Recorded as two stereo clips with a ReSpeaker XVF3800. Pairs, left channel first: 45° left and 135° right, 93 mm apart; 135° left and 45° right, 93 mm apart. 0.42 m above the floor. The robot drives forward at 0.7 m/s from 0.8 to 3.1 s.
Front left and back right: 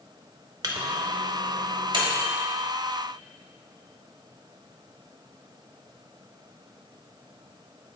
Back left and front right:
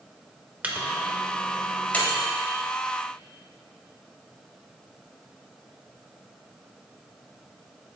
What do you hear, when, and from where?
0.6 s a microwave: 115° right, 0.8 m; by 2.2 s 155° right, 1.5 m